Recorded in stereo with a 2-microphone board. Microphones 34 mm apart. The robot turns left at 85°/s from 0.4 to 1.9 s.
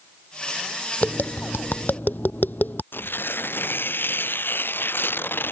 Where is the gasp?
I don't hear a gasp.